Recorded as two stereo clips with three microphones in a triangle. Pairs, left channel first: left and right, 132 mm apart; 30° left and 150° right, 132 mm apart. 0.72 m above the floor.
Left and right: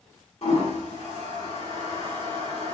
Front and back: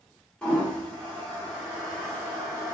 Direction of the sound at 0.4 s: 115° left.